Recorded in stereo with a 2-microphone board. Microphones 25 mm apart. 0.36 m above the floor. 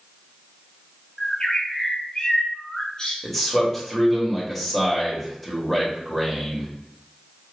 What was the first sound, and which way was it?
A bird, 40° left (ahead or behind).